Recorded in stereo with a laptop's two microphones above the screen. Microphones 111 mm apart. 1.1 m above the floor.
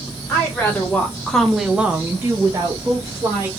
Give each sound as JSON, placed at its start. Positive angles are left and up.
{"t": 0.3, "sound": "a woman speaking", "side_deg": 15, "distance_m": 1.4}